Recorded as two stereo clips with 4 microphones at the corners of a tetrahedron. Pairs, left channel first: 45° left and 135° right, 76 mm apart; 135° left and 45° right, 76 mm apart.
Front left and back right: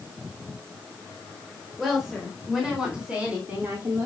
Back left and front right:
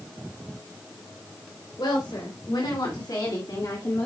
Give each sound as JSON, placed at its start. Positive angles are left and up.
{"t": 1.8, "sound": "a woman speaking", "azimuth_deg": 135, "distance_m": 4.0}